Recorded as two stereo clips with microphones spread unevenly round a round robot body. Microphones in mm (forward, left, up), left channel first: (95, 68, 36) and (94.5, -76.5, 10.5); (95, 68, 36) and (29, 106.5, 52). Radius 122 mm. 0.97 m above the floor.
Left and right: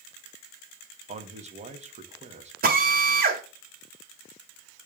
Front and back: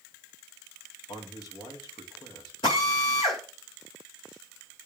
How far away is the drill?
About 1.9 m.